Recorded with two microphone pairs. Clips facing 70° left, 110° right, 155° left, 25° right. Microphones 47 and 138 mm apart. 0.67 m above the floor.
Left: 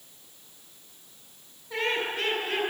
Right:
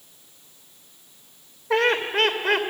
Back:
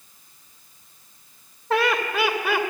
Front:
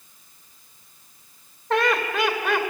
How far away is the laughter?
About 2.5 m.